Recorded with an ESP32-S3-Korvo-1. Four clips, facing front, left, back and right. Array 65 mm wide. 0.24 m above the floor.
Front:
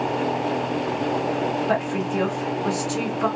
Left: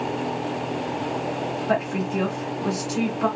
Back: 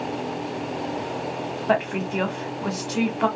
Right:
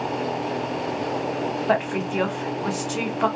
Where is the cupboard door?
No cupboard door in this recording.